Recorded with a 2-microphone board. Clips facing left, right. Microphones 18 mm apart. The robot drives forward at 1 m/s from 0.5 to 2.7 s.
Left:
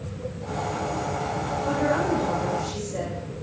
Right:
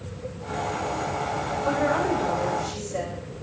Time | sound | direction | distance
1.6 | a woman speaking | 15° right (ahead or behind) | 6 m